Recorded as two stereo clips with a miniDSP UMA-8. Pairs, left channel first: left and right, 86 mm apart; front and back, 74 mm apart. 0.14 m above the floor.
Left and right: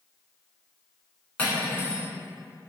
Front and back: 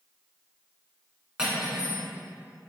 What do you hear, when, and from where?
1.4 s cutlery clinking: 130° left, 0.7 m